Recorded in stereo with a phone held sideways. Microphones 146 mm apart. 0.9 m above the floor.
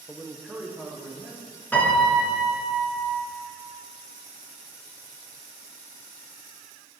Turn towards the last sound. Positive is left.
turn(degrees=10)  # may be behind; listen again after turning